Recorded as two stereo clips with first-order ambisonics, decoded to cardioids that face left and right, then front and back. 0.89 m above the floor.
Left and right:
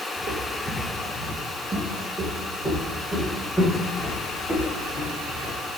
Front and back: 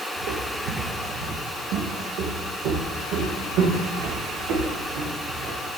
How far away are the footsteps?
About 1.5 m.